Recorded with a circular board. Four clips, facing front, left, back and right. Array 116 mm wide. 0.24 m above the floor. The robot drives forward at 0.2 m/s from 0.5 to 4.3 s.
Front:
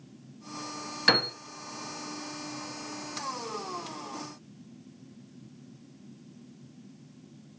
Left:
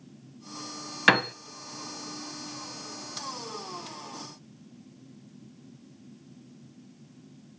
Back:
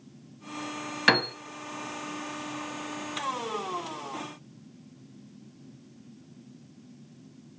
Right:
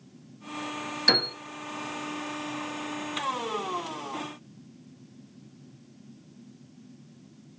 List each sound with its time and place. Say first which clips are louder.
1.1 s a piano: left 6 dB, back 3 dB; 115° left, 0.6 m; by 1.3 s 120° left, 0.6 m